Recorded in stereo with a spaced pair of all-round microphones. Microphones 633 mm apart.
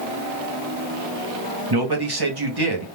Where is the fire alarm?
No fire alarm in this recording.